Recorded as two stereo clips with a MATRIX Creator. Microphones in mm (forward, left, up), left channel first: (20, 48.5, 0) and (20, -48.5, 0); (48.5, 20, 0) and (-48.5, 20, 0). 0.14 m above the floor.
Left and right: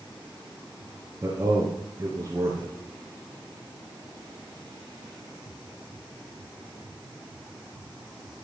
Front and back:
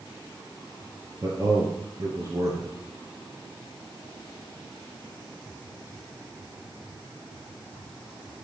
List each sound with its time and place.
1.2 s a man speaking: 145° right, 2.5 m